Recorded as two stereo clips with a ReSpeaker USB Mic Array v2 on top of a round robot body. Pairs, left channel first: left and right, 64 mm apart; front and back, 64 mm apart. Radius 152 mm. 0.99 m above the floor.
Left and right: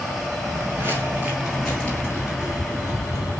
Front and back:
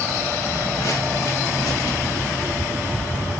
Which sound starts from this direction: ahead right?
Footsteps, at 0.5 s.